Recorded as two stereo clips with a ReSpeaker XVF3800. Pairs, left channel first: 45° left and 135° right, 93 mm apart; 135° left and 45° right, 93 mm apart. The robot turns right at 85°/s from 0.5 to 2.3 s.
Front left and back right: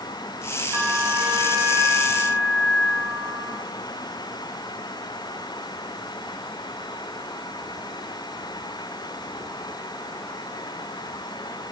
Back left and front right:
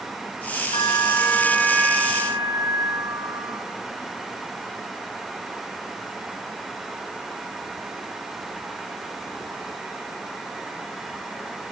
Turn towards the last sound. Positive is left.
turn(degrees=-75)